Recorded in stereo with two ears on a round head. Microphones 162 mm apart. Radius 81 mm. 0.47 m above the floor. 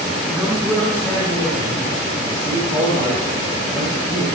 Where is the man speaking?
5° right (ahead or behind), 1.2 m; by 4.2 s 30° left (ahead or behind), 5 m.